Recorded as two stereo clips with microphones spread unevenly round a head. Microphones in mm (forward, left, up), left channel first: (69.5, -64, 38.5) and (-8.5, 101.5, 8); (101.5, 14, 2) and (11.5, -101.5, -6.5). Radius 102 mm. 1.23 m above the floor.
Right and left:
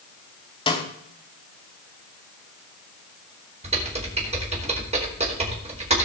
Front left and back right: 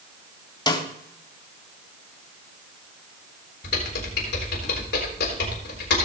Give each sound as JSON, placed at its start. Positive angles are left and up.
{"t": 0.7, "sound": "a snare drum", "azimuth_deg": -5, "distance_m": 2.5}
{"t": 3.6, "sound": "typing on a keyboard", "azimuth_deg": 60, "distance_m": 3.5}